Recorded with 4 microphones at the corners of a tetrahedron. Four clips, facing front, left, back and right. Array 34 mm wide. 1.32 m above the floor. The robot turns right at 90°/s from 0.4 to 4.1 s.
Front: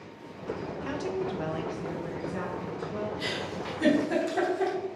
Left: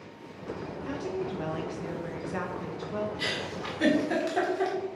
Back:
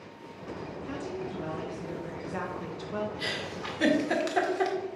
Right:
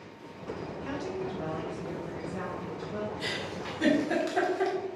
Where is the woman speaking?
20° right, 1.2 m; by 3.1 s 175° right, 1.2 m.